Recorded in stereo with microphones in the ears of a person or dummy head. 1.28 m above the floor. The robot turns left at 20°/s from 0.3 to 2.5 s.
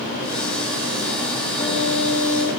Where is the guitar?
15° left (ahead or behind), 5 m; by 2.5 s 30° left (ahead or behind), 5 m.